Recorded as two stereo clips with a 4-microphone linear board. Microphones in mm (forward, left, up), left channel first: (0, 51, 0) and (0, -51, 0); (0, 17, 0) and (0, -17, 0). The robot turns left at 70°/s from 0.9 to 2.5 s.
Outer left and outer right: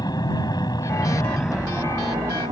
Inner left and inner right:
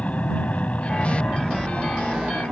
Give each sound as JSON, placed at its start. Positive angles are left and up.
{"t": 0.0, "sound": "an aircraft", "azimuth_deg": 45}